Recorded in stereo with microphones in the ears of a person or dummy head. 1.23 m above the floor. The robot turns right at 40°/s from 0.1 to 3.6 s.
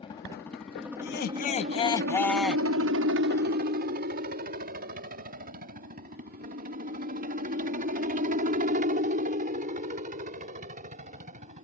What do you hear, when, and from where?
0.0 s a helicopter: 20° left (ahead or behind); by 11.6 s 35° right (ahead or behind)
1.0 s laughter: 130° left; by 2.7 s 165° right